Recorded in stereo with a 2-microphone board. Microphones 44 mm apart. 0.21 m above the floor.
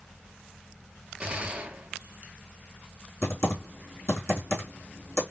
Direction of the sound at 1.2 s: 25° right (ahead or behind).